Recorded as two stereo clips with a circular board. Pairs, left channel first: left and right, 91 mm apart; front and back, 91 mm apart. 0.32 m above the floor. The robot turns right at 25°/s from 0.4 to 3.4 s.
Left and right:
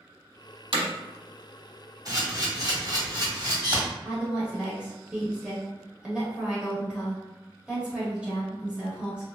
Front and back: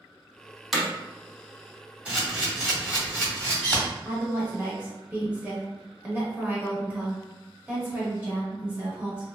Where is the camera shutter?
110° right, 1.4 m; by 3.8 s 75° right, 1.4 m.